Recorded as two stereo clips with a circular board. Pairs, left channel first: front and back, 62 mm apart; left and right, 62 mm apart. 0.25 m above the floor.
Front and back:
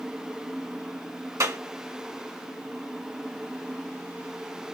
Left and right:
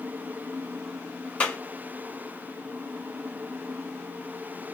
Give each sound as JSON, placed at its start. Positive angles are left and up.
{"t": 1.4, "sound": "a clap", "azimuth_deg": 155, "distance_m": 2.0}